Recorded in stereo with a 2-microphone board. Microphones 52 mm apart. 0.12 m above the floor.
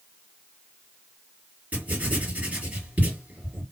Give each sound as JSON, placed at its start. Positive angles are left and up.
{"t": 1.7, "sound": "writing", "side_deg": -30, "distance_m": 2.5}